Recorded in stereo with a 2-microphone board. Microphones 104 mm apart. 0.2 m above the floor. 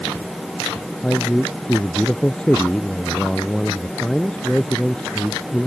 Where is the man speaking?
10° left (ahead or behind).